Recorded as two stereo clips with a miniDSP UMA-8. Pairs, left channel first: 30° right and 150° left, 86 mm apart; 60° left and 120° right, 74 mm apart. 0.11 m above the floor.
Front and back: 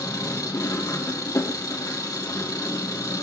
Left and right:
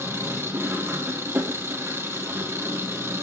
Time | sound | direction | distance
0.0 | an engine running | 70° right | 2.5 m